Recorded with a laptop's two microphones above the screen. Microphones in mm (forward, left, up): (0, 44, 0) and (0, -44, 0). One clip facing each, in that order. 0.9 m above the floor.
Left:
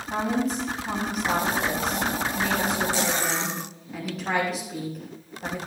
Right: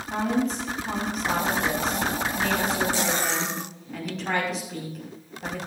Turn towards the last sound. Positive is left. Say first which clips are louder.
# even
turn(degrees=5)  # may be behind; listen again after turning